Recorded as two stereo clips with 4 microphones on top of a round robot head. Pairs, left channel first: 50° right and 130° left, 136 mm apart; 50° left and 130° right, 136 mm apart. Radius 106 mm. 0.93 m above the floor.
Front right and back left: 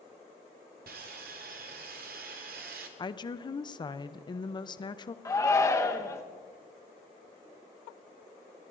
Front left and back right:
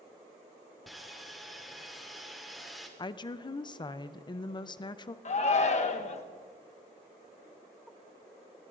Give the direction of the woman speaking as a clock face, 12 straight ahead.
12 o'clock.